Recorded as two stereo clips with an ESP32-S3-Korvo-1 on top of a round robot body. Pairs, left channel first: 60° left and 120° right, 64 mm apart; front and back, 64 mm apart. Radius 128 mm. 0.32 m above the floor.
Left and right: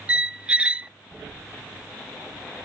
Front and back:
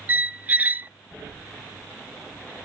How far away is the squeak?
About 0.6 m.